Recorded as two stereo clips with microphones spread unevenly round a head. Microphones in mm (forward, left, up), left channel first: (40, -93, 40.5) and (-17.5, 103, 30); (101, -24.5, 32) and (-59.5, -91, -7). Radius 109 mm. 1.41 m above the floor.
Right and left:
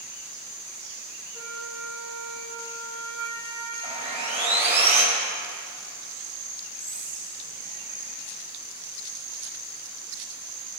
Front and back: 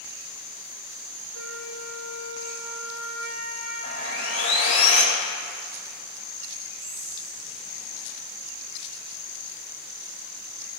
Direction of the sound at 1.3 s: Straight behind.